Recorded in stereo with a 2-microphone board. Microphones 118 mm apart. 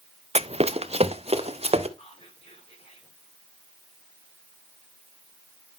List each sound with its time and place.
0.3 s running footsteps: 60° right (ahead or behind), 0.5 m
2.0 s whispering: 55° left (ahead or behind), 6 m